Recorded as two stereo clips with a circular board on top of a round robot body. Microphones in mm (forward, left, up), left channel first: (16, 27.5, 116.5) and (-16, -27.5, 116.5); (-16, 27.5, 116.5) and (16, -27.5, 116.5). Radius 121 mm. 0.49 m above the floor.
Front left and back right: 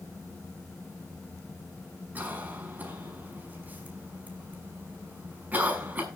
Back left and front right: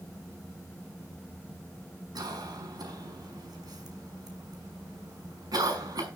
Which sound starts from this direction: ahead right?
A cough, at 2.1 s.